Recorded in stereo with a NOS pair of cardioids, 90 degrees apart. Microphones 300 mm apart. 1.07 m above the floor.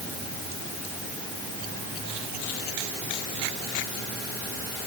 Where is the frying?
No frying in this recording.